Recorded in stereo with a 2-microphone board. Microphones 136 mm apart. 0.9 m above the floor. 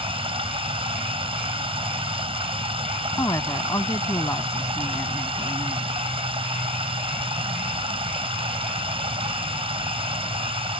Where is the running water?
40° right (ahead or behind).